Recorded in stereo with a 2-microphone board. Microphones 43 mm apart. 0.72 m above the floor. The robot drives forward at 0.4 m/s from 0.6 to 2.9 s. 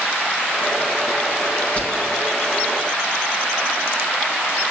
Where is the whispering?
35° left (ahead or behind), 6.5 m.